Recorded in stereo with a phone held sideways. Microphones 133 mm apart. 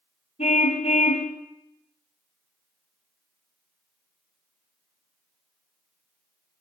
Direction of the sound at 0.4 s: 50° left (ahead or behind).